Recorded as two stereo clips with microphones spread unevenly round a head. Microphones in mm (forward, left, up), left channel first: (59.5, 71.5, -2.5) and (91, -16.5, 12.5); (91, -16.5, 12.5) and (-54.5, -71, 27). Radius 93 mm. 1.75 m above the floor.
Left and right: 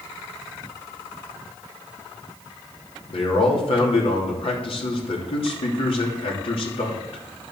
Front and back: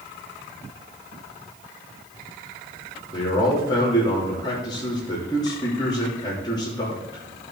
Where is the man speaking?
90° left, 3 m.